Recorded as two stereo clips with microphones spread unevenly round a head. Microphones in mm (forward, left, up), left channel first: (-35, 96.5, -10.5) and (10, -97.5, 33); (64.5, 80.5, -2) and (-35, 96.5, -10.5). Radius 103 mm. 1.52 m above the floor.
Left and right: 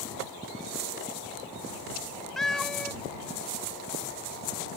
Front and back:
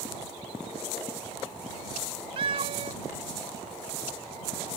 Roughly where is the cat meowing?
Behind right.